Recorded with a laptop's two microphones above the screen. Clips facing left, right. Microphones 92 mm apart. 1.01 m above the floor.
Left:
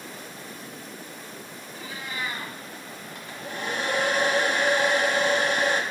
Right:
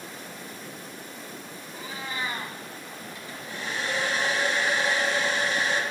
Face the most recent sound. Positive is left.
turn(degrees=50)  # may be behind; listen again after turning